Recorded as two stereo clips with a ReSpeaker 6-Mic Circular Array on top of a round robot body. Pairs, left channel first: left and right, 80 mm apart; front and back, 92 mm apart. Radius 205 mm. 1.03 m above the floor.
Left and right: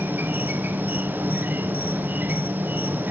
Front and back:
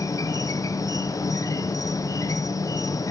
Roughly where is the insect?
Ahead right.